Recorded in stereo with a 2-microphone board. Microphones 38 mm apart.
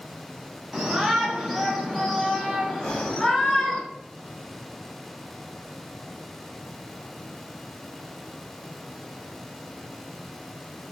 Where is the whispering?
20° left (ahead or behind), 2 m.